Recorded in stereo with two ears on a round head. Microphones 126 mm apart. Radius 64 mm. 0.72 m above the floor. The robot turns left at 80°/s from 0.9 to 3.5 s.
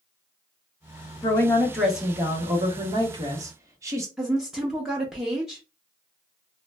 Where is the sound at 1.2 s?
50° left, 0.9 m; by 4.1 s 135° right, 0.9 m.